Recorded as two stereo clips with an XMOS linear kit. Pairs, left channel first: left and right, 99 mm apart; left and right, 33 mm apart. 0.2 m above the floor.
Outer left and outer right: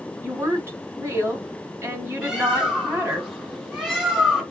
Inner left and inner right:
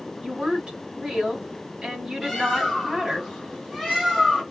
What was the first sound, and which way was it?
A woman speaking, 30° right (ahead or behind).